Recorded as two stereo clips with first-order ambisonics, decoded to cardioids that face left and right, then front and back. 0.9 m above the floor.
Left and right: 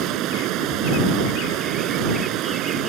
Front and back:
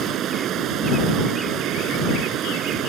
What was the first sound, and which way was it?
Running water, 130° right.